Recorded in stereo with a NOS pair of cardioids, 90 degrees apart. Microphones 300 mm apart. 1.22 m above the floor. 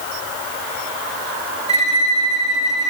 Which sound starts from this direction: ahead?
A violin, at 1.7 s.